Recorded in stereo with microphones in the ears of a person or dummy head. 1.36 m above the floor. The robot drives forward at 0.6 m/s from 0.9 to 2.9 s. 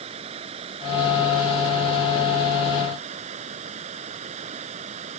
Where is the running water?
30° right (ahead or behind); by 5.2 s 35° right (ahead or behind).